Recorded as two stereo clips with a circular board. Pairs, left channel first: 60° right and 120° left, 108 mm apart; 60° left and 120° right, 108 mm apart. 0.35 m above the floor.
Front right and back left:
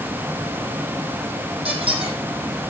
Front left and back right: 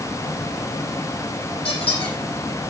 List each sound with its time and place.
1.6 s a squeak: 90° left, 6 m